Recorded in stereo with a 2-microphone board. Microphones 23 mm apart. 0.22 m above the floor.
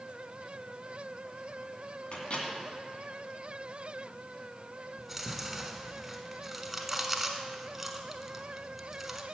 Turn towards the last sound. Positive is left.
turn(degrees=-10)  # may be behind; listen again after turning